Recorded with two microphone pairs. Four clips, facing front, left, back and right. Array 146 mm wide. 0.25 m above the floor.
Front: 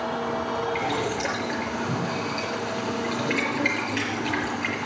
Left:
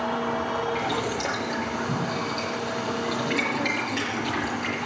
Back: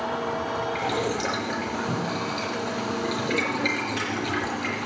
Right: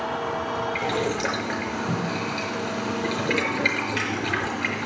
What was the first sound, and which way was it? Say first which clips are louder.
Boiling: right 2 dB, even; 110° right.